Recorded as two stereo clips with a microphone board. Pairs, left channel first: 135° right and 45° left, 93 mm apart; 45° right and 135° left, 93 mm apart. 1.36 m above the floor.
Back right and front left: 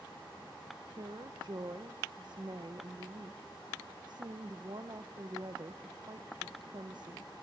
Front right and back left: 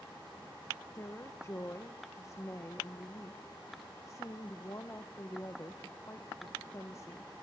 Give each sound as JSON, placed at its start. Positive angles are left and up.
{"t": 1.0, "sound": "a woman speaking", "azimuth_deg": 10, "distance_m": 0.9}